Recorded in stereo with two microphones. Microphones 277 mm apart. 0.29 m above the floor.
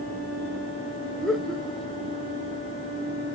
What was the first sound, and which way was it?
Laughter, centre (ahead or behind).